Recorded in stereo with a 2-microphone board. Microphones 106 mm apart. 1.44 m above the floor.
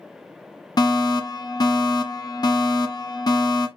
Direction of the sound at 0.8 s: 40° left (ahead or behind).